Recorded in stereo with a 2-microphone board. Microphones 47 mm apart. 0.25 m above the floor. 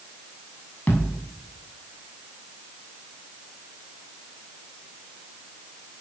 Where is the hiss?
No hiss in this recording.